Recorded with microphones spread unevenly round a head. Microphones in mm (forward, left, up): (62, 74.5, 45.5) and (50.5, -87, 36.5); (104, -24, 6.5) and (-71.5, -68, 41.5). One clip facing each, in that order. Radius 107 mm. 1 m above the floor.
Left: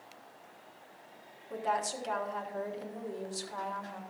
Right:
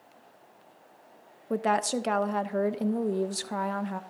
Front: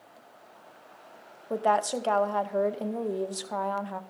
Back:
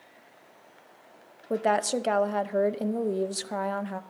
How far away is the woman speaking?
About 0.7 m.